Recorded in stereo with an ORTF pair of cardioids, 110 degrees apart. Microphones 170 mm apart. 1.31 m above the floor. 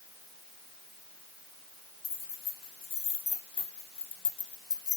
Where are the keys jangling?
40° left, 2.5 m; by 5.0 s 20° left, 0.8 m.